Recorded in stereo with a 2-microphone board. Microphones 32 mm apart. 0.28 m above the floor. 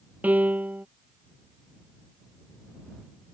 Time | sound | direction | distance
0.2 | a piano | 55° right (ahead or behind) | ?